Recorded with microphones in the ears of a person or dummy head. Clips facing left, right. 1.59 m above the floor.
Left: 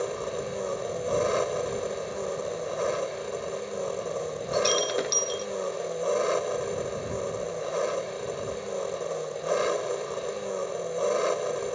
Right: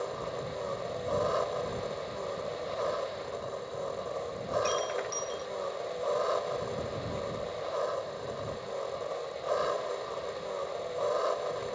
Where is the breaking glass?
55° left (ahead or behind).